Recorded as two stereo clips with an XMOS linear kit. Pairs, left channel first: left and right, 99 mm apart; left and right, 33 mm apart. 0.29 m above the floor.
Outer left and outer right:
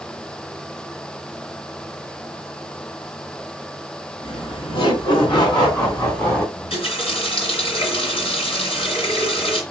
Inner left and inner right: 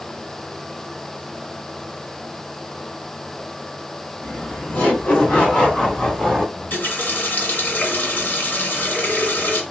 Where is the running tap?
70° left (ahead or behind), 1.8 m.